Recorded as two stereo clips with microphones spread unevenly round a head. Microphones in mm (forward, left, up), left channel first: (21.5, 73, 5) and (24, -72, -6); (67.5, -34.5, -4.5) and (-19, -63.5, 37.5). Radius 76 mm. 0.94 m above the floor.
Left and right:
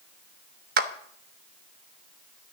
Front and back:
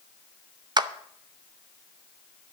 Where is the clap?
105° right, 0.9 m.